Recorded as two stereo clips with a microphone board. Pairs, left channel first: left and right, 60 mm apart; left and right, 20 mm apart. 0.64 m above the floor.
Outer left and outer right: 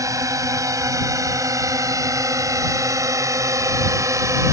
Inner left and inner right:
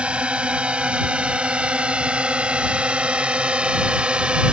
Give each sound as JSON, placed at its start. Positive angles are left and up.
{"t": 0.0, "sound": "a drone", "side_deg": -70}